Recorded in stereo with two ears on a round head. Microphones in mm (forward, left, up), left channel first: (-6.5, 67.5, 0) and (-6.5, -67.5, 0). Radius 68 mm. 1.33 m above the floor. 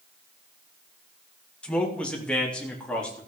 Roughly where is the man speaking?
Centre.